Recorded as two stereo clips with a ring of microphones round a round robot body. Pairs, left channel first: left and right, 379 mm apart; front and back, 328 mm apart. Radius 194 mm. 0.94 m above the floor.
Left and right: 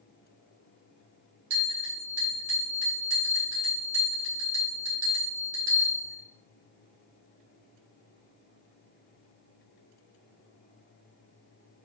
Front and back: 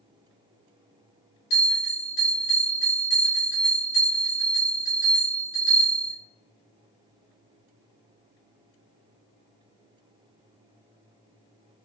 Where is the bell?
35° right, 2 m.